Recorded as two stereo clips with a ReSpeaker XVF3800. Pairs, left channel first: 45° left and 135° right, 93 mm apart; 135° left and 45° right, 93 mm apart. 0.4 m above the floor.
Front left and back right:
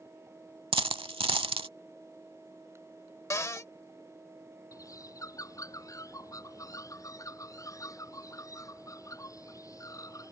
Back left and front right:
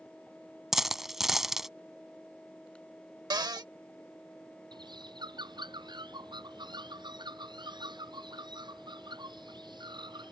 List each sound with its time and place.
0.7 s a dropped coin: 130° right
3.3 s a cupboard door: 10° right
4.7 s a bird: 10° right